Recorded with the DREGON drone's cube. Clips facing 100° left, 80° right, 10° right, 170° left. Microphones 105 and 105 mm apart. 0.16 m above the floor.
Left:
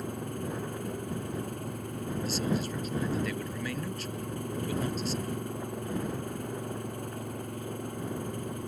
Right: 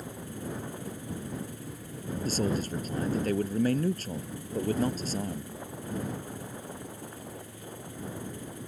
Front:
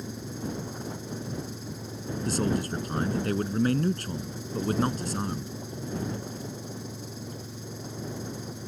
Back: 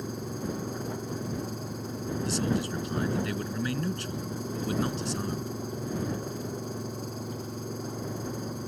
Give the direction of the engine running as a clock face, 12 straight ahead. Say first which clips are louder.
Left 4 dB, back 1 dB; 8 o'clock.